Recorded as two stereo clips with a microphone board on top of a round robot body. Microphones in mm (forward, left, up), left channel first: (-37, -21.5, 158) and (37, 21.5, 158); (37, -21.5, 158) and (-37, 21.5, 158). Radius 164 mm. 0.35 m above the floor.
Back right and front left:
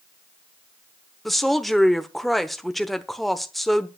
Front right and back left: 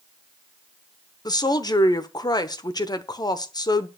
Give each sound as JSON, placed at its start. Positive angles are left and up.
{"t": 1.2, "sound": "a woman speaking", "azimuth_deg": -60, "distance_m": 1.3}